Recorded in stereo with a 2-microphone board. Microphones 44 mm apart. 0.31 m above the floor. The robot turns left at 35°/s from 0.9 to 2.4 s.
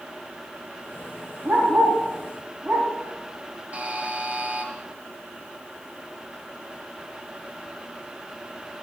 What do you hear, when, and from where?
1.4 s a dog barking: 45° right (ahead or behind), 3.5 m; by 2.9 s 15° right (ahead or behind), 3.5 m
3.7 s a buzzer: 30° right (ahead or behind), 1.6 m